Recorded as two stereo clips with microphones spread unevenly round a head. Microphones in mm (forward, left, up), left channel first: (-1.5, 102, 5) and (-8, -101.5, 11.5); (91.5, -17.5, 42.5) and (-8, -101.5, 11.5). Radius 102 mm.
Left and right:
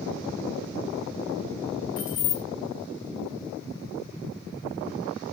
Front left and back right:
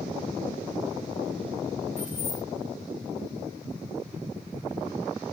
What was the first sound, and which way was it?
Keys jangling, 100° left.